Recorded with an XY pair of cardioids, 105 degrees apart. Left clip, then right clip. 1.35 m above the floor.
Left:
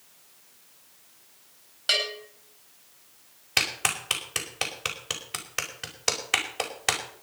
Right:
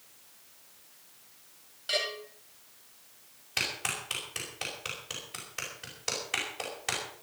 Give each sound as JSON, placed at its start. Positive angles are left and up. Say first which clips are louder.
{"t": 1.9, "sound": "a bell", "louder": "left 6 dB", "azimuth_deg": 70, "distance_m": 8.5}
{"t": 3.6, "sound": "a clap", "louder": "left 6 dB", "azimuth_deg": 60, "distance_m": 5.0}